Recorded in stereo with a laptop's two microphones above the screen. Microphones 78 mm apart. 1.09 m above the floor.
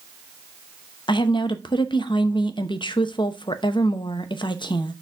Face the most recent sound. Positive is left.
turn(degrees=85)